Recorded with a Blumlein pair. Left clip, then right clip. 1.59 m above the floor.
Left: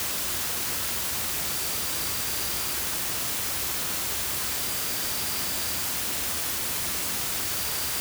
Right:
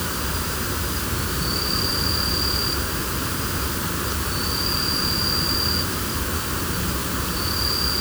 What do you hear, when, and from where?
0.0 s an insect: 35° right